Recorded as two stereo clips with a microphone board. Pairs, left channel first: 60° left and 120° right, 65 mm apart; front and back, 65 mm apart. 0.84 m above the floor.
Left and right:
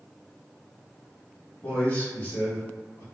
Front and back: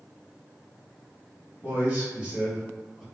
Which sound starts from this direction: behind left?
A man speaking, at 1.6 s.